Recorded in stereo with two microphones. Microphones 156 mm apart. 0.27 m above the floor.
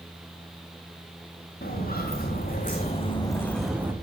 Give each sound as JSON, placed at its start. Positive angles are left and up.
{"t": 1.6, "sound": "footsteps", "side_deg": 75, "distance_m": 2.5}